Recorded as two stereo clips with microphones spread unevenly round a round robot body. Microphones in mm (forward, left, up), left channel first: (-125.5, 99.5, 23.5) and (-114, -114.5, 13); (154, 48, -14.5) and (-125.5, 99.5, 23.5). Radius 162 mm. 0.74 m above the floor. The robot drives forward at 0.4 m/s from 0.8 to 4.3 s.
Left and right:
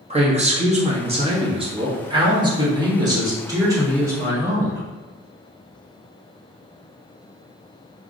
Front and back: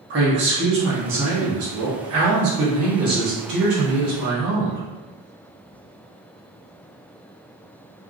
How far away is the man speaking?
About 1.4 m.